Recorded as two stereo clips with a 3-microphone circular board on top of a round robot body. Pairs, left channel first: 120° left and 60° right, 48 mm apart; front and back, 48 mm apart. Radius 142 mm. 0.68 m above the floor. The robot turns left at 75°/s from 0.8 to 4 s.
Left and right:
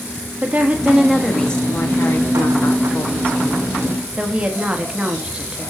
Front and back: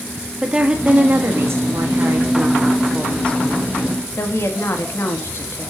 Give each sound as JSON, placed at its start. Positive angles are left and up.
{"t": 0.4, "sound": "a woman speaking", "azimuth_deg": -115, "distance_m": 1.8}